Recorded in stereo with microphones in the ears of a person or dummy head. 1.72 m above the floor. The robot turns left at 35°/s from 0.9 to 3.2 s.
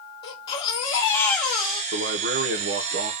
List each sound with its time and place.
0.2 s a baby crying: 30° left, 2 m; by 1.8 s 5° right, 2 m
1.9 s a man speaking: 80° right, 0.7 m; by 3.1 s 120° right, 0.7 m